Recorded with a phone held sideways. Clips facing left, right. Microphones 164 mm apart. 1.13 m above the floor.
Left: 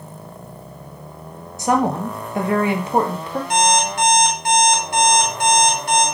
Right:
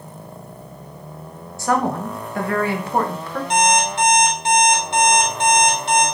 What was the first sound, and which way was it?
A woman speaking, 20° left (ahead or behind).